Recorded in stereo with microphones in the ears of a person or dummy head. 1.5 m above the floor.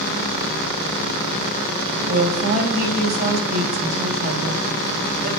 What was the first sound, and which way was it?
A woman speaking, 50° right (ahead or behind).